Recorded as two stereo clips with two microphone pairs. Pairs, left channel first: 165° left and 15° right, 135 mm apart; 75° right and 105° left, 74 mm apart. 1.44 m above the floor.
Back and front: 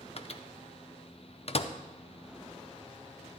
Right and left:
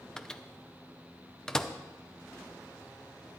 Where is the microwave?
155° right, 0.5 m.